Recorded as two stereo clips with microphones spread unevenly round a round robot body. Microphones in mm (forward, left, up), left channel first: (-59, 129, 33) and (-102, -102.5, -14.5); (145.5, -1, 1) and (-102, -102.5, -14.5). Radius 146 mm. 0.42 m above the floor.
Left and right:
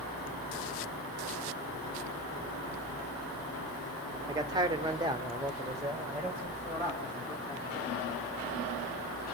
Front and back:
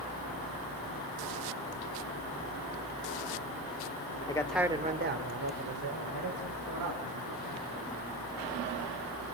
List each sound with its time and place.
4.3 s a man speaking: 50° right, 1.1 m; by 7.9 s straight behind, 4.5 m